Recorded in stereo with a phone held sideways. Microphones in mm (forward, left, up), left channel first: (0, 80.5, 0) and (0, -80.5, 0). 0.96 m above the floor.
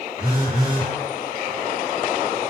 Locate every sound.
0.2 s a phone buzzing: 65° right (ahead or behind), 1.1 m